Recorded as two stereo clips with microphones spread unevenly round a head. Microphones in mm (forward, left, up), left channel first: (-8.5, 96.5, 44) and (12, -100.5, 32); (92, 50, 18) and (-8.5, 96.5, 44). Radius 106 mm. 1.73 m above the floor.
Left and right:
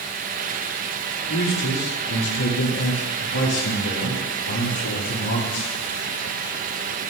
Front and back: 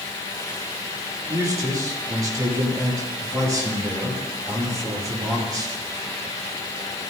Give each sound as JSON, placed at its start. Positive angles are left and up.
{"t": 1.3, "sound": "a man speaking", "azimuth_deg": 95, "distance_m": 9.5}